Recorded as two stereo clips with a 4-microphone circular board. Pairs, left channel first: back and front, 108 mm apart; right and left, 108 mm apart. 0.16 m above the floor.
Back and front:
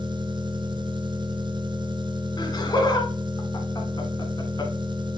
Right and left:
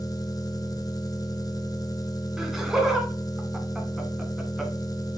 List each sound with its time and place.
0.0 s an engine running: 40° right, 0.8 m
2.4 s laughter: 175° left, 1.8 m